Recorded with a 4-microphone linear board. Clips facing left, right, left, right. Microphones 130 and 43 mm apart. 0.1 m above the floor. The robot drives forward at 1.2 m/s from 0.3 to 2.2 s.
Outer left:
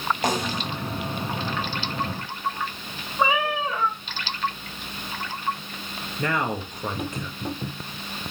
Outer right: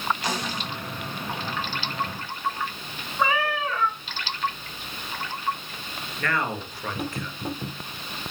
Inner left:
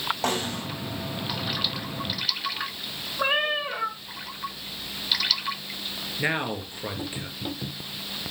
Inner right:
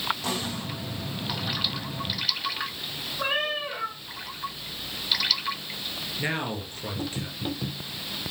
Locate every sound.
0.2 s a snare drum: 50° left (ahead or behind), 6 m; by 0.7 s 55° left (ahead or behind), 6 m
3.2 s a cat meowing: 15° left (ahead or behind), 2 m
6.2 s a man speaking: 20° left (ahead or behind), 1.9 m